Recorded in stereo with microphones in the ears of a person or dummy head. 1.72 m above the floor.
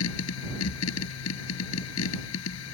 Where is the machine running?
80° left.